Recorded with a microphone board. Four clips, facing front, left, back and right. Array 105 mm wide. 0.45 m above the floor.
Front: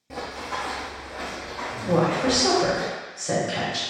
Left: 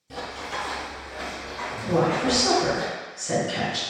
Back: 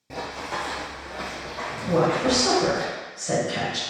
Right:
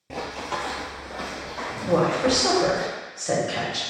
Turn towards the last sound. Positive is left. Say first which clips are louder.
# right 1 dB, even
turn(degrees=-80)